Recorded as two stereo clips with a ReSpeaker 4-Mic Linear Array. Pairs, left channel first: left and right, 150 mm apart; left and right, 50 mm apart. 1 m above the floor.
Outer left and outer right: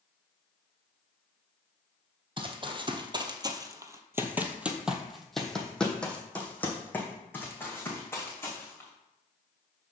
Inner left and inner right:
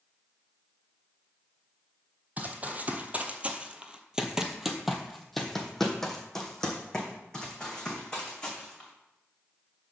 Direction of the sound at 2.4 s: 35° right (ahead or behind).